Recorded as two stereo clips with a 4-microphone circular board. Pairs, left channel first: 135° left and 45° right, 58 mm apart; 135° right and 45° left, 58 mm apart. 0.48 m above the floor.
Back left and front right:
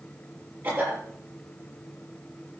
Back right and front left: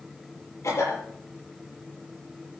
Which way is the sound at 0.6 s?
95° right.